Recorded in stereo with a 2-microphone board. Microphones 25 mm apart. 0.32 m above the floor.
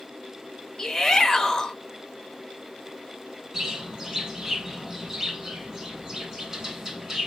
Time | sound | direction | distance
0.8 | a shout | 15° left (ahead or behind) | 1.1 m
3.5 | a bird | 25° right (ahead or behind) | 2.5 m